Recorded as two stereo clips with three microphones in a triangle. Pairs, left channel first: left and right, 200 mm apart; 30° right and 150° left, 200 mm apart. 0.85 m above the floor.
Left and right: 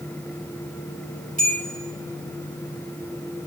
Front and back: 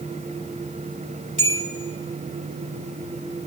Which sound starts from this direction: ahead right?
A bell, at 1.4 s.